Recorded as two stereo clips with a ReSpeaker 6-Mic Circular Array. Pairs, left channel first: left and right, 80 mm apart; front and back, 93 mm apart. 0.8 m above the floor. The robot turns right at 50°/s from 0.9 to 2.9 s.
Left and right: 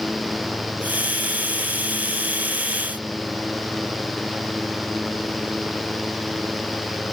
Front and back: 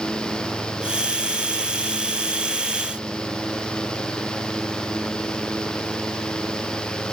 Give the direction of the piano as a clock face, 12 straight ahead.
I don't hear a piano.